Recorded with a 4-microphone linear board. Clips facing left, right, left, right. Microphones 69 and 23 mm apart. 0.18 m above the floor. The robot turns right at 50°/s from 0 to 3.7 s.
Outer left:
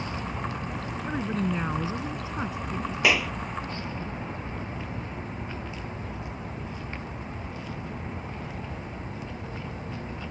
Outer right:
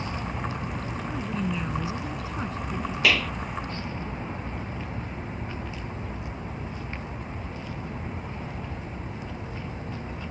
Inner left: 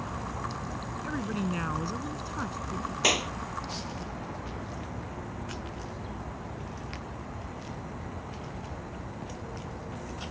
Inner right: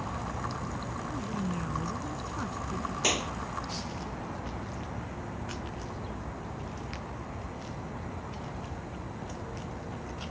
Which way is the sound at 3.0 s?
20° left (ahead or behind).